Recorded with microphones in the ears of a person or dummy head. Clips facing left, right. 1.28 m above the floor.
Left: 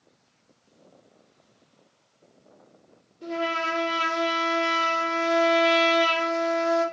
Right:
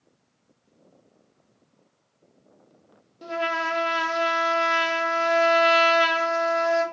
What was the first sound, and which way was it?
A trumpet, 70° right (ahead or behind).